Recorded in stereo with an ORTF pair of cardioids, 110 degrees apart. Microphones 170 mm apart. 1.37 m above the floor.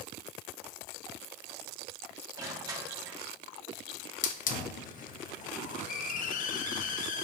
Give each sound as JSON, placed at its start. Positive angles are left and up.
{"t": 2.4, "sound": "crushing", "azimuth_deg": -20, "distance_m": 1.7}
{"t": 4.2, "sound": "a hiss", "azimuth_deg": 50, "distance_m": 1.0}